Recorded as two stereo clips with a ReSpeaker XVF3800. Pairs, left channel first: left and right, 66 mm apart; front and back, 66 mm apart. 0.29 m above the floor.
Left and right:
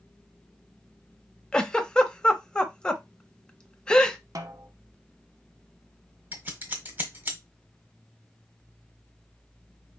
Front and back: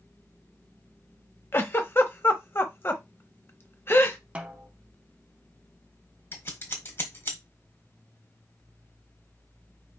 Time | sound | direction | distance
1.5 | a giggle | 20° left | 0.8 m
4.3 | a snare drum | 110° right | 1.0 m
6.3 | scissors | 40° right | 1.4 m